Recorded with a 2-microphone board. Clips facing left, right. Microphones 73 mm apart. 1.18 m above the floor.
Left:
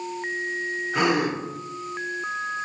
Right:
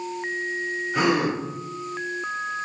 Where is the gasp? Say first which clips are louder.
Right 1 dB; 65° left (ahead or behind), 1.8 m.